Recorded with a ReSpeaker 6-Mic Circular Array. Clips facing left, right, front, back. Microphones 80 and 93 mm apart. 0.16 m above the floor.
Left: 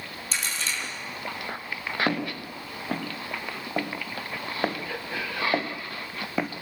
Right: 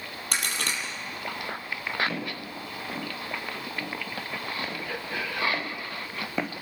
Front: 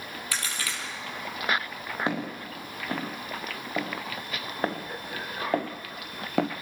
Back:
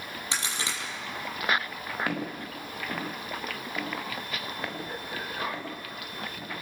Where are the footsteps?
65° left, 4 m; by 6.5 s straight ahead, 1.0 m.